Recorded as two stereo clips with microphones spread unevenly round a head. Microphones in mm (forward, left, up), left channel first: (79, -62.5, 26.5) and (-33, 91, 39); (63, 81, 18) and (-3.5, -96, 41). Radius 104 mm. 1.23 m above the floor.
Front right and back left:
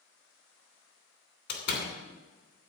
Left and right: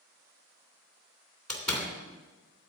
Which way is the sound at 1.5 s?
20° right.